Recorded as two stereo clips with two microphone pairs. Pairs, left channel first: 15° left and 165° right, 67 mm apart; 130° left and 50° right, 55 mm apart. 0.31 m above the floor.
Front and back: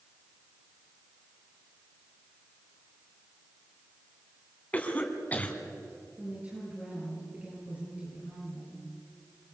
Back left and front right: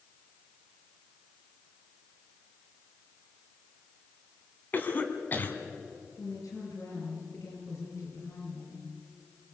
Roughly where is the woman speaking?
Behind left.